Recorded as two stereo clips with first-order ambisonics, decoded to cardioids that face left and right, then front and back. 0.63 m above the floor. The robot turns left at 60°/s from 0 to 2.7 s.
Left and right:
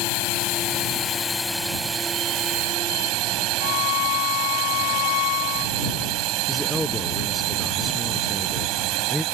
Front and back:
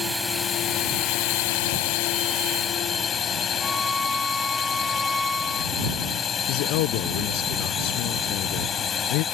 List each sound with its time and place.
0.0 s a drone: 95° left; by 9.3 s 65° right
3.6 s a violin: 85° left
6.5 s a man speaking: 5° left